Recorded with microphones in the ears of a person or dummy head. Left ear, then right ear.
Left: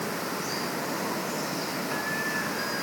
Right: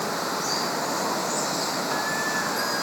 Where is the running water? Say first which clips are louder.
Right 5 dB; 35° right (ahead or behind).